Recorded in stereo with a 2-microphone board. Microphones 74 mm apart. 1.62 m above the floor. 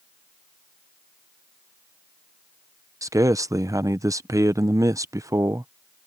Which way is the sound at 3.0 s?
45° right (ahead or behind).